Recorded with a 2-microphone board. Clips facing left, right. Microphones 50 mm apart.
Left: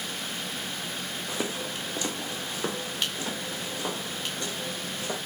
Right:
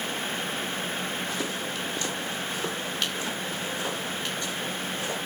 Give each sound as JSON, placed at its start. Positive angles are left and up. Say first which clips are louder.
{"t": 1.3, "sound": "footsteps", "louder": "right 1 dB", "side_deg": 20, "distance_m": 3.0}